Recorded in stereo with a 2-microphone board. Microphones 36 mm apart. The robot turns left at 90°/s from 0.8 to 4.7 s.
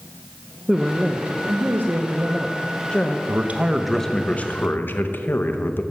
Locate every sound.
0.7 s a woman speaking: 10° right, 0.6 m; by 3.2 s 135° left, 0.6 m
3.3 s a man speaking: 120° right, 0.7 m; by 5.8 s 115° left, 0.7 m